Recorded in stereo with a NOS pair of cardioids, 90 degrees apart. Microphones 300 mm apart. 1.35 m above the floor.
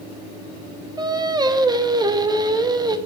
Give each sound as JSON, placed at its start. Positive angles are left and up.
{"t": 1.0, "sound": "singing", "azimuth_deg": -15, "distance_m": 0.7}